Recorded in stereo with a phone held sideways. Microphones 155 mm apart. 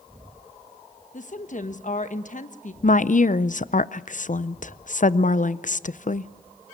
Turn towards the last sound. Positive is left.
turn(degrees=55)  # may be behind; listen again after turning